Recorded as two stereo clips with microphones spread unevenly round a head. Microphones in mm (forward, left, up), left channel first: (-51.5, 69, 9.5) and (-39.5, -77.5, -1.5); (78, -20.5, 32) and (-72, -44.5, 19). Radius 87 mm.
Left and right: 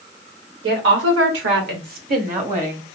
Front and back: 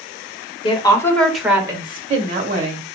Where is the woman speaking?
50° right, 1.1 m; by 2.8 s 130° right, 1.7 m.